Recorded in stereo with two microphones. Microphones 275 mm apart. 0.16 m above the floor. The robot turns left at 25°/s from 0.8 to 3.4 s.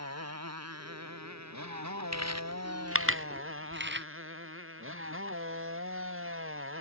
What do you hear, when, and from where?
0.0 s a motorcycle: 65° right; by 6.8 s 130° right
2.1 s chewing: 75° right (ahead or behind); by 4.1 s 40° right (ahead or behind)